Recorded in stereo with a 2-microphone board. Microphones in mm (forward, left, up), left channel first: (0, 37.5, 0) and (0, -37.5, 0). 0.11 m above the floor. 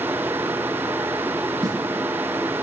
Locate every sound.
1.6 s a snare drum: 55° right (ahead or behind), 3 m